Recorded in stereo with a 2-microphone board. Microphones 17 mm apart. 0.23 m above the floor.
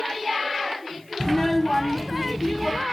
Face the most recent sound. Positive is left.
turn(degrees=-10)  # may be behind; listen again after turning